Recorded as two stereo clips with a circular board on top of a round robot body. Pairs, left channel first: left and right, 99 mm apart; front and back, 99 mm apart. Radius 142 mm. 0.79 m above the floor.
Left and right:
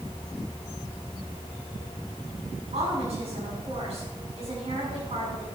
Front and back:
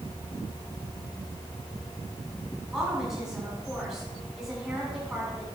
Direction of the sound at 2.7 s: 95° right.